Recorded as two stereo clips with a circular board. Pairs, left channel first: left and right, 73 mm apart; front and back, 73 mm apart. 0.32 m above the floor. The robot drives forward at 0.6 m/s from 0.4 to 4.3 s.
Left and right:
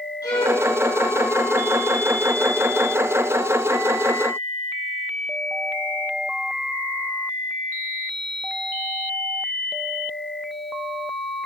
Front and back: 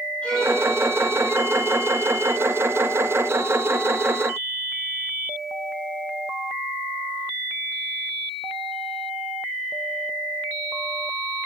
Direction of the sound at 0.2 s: 75° left.